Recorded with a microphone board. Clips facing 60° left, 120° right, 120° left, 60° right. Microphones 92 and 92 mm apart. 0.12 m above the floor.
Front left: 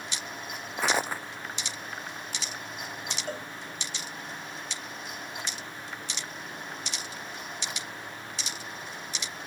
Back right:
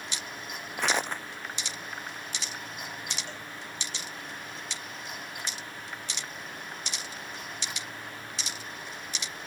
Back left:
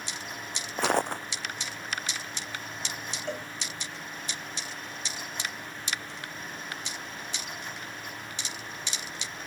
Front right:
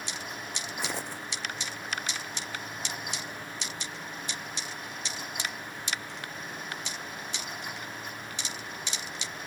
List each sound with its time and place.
0.8 s footsteps: 140° left
3.3 s a cowbell: 105° left